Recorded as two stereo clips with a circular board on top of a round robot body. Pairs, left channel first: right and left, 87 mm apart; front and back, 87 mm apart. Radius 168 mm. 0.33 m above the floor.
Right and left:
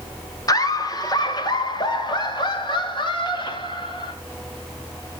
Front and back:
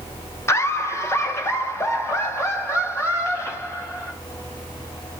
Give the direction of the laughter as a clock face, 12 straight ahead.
2 o'clock.